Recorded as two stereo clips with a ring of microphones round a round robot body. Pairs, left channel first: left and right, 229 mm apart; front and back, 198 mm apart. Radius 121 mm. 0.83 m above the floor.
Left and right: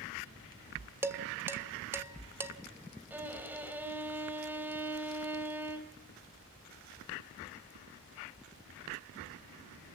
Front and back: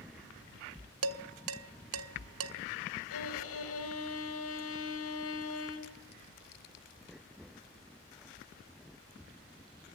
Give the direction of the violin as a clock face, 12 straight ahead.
12 o'clock.